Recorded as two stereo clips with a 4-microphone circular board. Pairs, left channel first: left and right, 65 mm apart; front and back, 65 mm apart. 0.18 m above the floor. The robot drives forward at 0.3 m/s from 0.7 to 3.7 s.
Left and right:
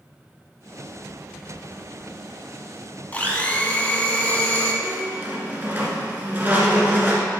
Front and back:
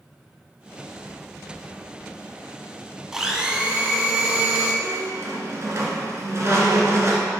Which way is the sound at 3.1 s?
110° left.